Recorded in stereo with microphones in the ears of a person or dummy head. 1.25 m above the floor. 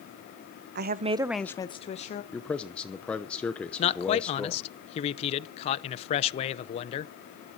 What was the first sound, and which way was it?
A woman speaking, 60° right (ahead or behind).